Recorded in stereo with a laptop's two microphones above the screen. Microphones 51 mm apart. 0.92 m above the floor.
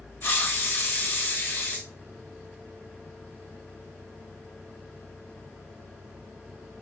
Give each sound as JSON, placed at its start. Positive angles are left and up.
{"t": 0.2, "sound": "a hiss", "side_deg": 45, "distance_m": 0.8}